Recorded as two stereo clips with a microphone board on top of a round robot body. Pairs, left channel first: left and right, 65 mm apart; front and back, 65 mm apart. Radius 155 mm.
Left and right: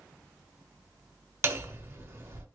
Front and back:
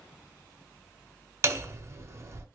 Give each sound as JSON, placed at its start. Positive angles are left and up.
{"t": 1.4, "sound": "hammering", "azimuth_deg": -135, "distance_m": 1.7}